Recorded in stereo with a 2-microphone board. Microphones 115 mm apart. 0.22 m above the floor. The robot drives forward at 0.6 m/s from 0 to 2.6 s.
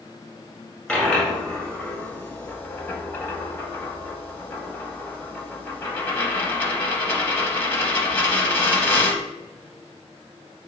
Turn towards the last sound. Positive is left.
turn(degrees=20)  # may be behind; listen again after turning